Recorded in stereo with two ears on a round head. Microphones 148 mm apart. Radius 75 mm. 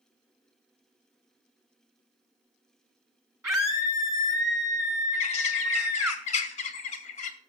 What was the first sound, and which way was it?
A scream, 20° right (ahead or behind).